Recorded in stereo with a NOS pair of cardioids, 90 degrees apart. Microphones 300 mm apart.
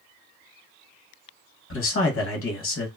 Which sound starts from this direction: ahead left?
A man speaking, at 1.7 s.